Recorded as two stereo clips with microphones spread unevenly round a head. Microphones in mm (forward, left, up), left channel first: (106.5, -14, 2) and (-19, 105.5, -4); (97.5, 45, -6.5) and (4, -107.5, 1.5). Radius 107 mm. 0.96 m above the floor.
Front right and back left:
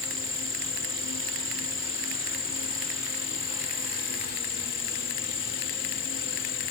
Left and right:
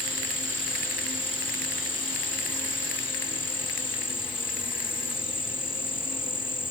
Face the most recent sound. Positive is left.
turn(degrees=-5)